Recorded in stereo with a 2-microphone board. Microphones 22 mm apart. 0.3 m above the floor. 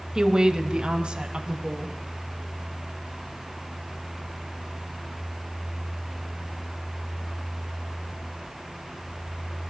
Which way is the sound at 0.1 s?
30° right (ahead or behind).